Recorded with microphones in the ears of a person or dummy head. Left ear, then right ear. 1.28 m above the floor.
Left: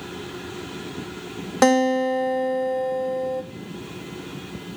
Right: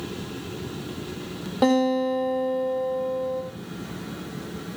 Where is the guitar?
65° left (ahead or behind), 1.5 m.